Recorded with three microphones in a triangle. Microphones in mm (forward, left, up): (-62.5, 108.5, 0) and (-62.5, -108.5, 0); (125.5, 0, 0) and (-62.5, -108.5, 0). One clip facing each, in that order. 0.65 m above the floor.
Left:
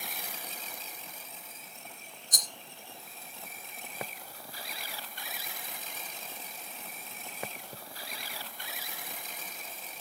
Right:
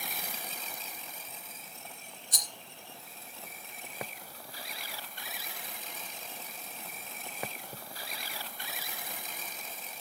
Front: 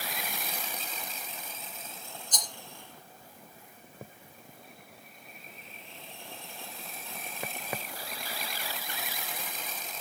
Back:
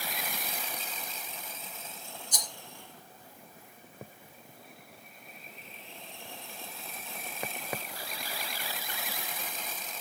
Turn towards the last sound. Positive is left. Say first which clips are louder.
# left 3 dB, front 2 dB
turn(degrees=130)